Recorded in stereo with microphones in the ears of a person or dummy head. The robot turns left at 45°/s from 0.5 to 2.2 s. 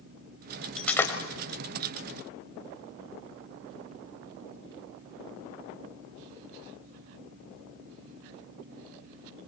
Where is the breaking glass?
Centre (ahead or behind), 2.5 m; by 1.1 s 15° left (ahead or behind), 2.5 m.